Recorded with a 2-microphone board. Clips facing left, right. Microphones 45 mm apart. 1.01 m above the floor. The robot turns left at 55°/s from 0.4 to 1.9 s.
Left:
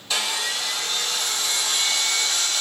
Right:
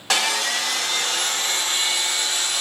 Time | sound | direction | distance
0.1 | sawing | 80° right | 1.0 m